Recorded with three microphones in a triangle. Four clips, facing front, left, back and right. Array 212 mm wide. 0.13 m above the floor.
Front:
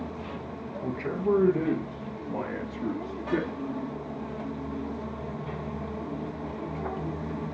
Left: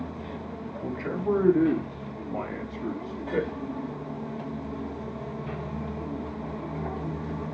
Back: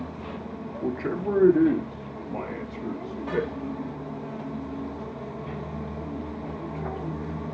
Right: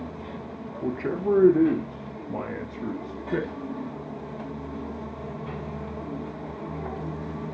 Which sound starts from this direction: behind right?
A man speaking, at 0.8 s.